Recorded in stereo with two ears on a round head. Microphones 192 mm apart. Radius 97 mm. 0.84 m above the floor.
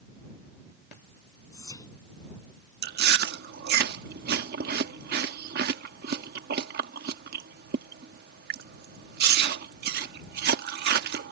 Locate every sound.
1.5 s whispering: 15° left (ahead or behind)
2.8 s chewing: 45° right (ahead or behind)